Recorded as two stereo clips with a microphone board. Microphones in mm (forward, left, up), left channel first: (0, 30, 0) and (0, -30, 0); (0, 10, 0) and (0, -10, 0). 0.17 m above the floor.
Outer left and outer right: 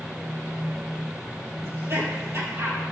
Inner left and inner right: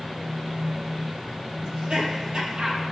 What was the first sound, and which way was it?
Laughter, 50° right (ahead or behind).